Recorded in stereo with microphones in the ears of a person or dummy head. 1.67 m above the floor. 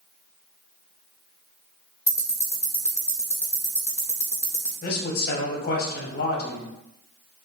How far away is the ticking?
About 0.6 m.